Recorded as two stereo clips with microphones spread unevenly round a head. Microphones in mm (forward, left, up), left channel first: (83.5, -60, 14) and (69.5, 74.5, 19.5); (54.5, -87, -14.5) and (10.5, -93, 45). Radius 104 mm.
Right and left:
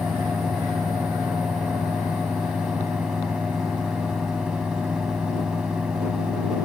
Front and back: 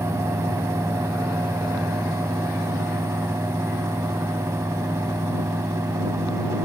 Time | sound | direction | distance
0.0 | a fan | 175° right | ?